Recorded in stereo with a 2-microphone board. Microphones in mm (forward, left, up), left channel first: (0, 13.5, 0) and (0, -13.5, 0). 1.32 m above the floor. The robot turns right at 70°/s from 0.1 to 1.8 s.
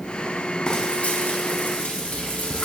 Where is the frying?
30° left, 1.0 m; by 2.7 s 110° left, 1.0 m.